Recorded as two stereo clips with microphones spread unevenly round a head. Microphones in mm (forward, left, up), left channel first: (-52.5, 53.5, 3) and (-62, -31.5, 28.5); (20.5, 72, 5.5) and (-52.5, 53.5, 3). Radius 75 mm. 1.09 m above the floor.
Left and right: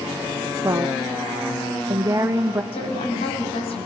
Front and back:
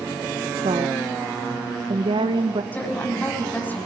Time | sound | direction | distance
0.6 | a woman speaking | 155° right | 1.1 m
2.7 | a woman speaking | 80° left | 7 m